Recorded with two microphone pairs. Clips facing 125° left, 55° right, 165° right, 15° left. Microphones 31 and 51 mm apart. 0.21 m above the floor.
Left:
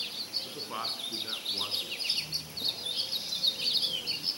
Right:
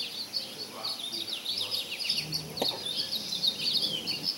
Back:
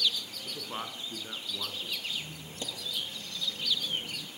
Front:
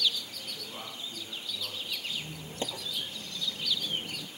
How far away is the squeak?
About 0.9 m.